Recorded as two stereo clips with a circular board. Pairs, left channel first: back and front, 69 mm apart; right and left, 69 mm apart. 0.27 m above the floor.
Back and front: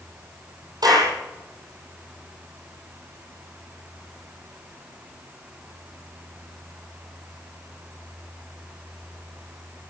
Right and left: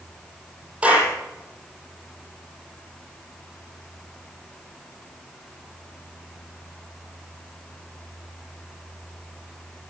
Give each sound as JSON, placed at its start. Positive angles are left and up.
{"t": 0.8, "sound": "a clap", "azimuth_deg": 20, "distance_m": 8.0}